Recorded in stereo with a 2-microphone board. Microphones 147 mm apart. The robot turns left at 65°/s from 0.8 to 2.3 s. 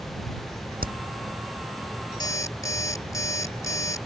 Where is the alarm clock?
30° left (ahead or behind); by 4.1 s 20° left (ahead or behind).